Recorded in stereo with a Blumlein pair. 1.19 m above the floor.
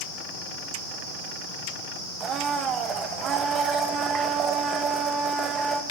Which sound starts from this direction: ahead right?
A blender, at 2.2 s.